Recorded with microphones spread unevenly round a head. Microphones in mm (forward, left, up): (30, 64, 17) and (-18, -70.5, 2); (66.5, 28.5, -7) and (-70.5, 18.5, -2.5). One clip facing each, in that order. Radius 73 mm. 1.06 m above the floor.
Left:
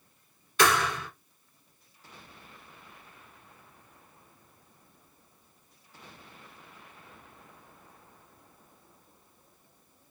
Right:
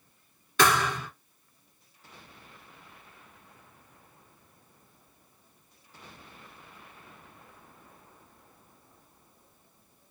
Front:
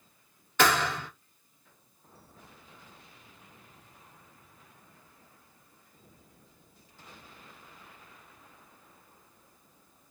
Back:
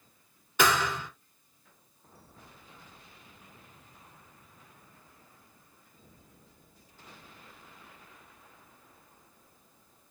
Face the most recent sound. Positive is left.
turn(degrees=-100)